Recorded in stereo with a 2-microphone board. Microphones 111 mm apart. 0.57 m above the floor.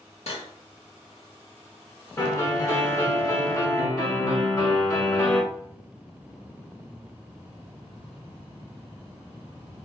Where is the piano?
30° left (ahead or behind), 1.9 m.